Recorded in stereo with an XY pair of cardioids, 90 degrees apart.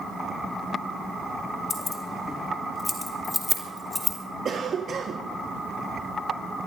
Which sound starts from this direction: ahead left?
Keys jangling, at 1.7 s.